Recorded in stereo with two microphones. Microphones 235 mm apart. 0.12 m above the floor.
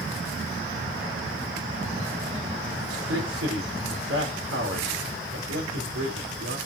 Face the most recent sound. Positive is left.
turn(degrees=-75)  # may be behind; listen again after turning